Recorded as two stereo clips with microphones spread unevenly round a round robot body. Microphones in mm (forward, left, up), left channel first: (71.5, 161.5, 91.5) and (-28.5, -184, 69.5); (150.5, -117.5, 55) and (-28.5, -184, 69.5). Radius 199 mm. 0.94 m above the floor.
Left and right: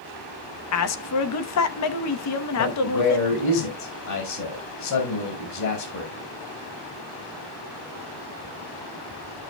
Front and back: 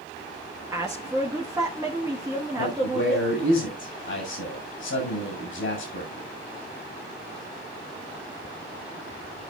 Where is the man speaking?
35° left, 5 m.